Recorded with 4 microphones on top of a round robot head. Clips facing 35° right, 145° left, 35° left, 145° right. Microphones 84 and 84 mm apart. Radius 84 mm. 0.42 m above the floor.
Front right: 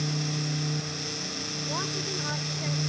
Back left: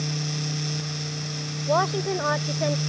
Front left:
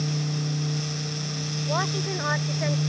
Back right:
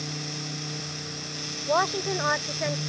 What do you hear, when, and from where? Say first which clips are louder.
1.7 s a woman speaking: back left 12 dB, back right 4 dB; 150° left; by 2.8 s 125° left